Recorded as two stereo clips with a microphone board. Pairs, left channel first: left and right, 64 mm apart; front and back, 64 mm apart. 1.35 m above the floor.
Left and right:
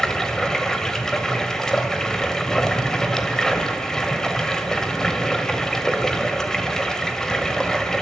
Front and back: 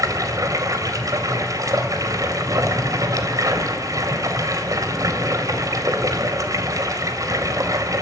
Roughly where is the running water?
Behind.